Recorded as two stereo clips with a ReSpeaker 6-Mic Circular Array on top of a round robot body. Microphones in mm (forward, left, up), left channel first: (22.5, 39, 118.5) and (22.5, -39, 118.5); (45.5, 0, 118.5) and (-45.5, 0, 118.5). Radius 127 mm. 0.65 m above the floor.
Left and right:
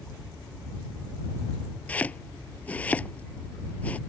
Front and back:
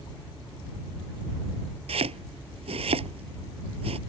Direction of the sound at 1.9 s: 165° left.